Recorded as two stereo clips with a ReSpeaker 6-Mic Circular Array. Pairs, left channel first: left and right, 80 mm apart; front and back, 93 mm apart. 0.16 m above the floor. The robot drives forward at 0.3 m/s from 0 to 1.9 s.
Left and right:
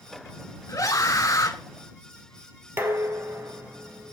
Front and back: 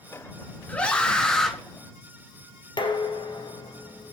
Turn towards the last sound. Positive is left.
turn(degrees=-30)